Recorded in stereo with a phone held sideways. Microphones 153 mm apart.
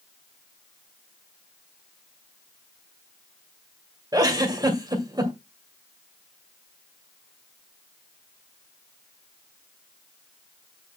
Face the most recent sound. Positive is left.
turn(degrees=-25)  # may be behind; listen again after turning